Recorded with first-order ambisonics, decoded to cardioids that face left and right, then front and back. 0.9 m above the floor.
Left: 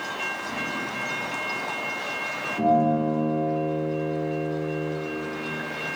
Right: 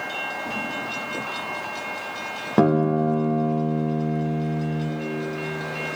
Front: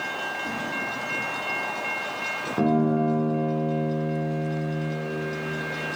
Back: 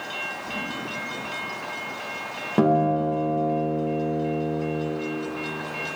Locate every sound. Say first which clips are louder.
0.4 s a whoosh: right 1 dB, front 1 dB; 30° right, 2.5 m
2.6 s a guitar: right 1 dB, back 4 dB; 110° right, 0.9 m